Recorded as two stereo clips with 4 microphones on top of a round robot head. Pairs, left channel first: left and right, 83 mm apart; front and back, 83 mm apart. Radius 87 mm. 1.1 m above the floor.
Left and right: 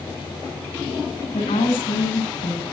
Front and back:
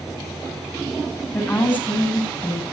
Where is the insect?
90° left, 8.5 m.